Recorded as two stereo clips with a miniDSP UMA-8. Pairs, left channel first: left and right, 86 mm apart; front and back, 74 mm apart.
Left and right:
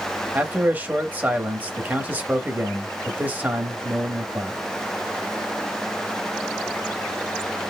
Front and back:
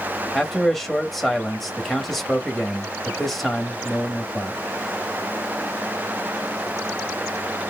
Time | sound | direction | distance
0.3 | a man speaking | 85° right | 0.9 m